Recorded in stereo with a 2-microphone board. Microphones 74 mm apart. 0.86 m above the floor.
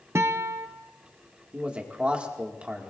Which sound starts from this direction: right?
A guitar, at 0.1 s.